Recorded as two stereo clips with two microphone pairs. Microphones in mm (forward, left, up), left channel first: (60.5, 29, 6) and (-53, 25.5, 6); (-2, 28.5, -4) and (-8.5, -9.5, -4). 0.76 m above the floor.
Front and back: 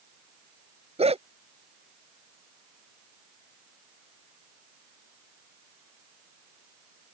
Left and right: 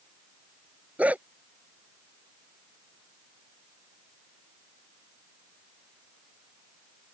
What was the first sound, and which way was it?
A dog barking, 155° right.